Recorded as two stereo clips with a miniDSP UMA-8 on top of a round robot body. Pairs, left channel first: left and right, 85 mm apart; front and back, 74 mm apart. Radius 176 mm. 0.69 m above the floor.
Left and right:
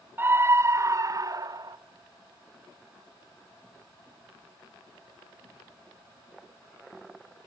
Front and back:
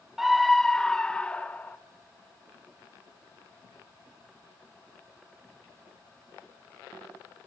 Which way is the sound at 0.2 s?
100° right.